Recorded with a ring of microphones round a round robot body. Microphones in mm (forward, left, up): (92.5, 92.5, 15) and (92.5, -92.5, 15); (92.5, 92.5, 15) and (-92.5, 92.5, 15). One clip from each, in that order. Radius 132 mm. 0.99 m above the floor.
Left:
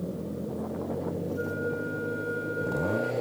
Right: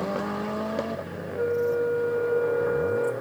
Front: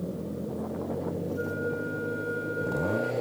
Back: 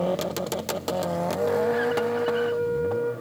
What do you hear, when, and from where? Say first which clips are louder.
1.3 s a flute: right 11 dB, back 10 dB; 5° right, 3.5 m